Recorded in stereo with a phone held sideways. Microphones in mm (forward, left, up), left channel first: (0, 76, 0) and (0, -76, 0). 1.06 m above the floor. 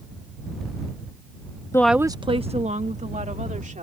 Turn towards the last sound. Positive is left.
turn(degrees=-55)  # may be behind; listen again after turning